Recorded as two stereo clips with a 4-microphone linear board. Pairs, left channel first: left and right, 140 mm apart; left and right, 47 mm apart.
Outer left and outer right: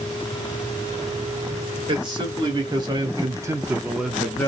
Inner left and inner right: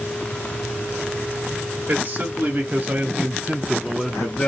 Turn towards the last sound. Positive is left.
turn(degrees=10)  # may be behind; listen again after turning